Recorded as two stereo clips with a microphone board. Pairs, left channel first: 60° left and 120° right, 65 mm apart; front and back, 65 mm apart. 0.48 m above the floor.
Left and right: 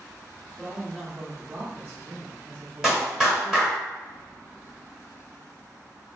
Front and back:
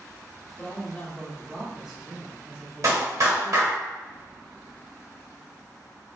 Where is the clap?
160° left, 1.8 m.